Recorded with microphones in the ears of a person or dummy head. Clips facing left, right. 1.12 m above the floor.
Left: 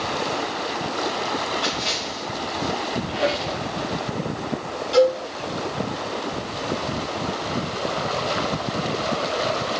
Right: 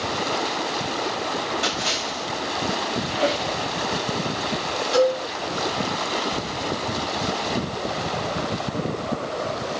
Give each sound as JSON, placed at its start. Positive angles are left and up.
{"t": 1.6, "sound": "a splash", "side_deg": -20, "distance_m": 7.5}
{"t": 3.1, "sound": "a squeak", "side_deg": 0, "distance_m": 7.0}
{"t": 4.9, "sound": "a cowbell", "side_deg": 0, "distance_m": 9.5}